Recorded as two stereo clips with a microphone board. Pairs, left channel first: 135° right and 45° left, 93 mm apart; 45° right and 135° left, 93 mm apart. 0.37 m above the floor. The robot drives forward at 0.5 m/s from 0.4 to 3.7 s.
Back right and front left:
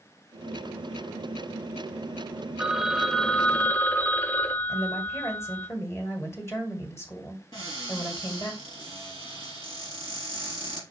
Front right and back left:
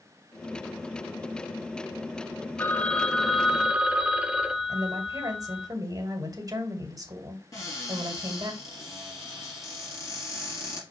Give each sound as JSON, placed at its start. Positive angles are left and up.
{"t": 2.6, "sound": "a phone ringing", "azimuth_deg": -20, "distance_m": 0.7}
{"t": 4.7, "sound": "a woman speaking", "azimuth_deg": 175, "distance_m": 2.0}
{"t": 7.5, "sound": "a cupboard door", "azimuth_deg": -100, "distance_m": 4.0}